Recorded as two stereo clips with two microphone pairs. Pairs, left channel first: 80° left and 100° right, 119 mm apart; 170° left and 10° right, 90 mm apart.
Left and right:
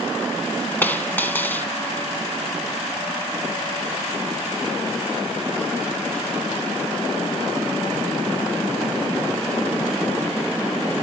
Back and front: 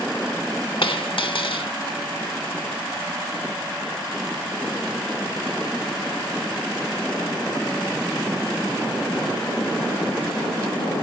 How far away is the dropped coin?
About 1.8 m.